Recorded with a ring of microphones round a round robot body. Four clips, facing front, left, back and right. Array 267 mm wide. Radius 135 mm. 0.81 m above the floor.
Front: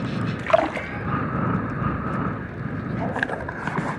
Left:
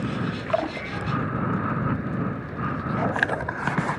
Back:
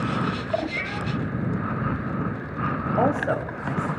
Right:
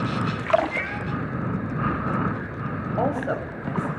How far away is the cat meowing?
About 6 m.